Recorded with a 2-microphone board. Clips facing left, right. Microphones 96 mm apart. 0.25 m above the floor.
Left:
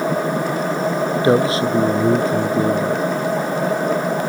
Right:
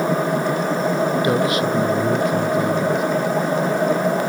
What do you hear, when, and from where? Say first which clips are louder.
1.2 s a man speaking: left 3 dB; 30° left (ahead or behind); by 3.0 s 35° left (ahead or behind)